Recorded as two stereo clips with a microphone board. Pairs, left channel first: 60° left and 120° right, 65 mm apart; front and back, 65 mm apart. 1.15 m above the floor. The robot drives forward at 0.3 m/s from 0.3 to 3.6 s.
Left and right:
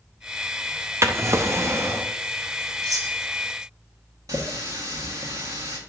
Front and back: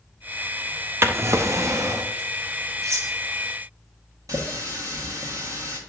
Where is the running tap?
150° right, 1.3 m.